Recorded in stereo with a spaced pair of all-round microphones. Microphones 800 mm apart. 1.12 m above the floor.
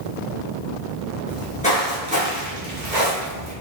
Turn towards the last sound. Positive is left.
turn(degrees=-45)  # may be behind; listen again after turning